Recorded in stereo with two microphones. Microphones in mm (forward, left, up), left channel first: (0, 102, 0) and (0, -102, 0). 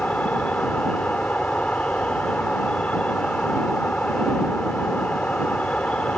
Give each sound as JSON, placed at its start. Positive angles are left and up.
{"t": 0.0, "sound": "an insect", "side_deg": 5}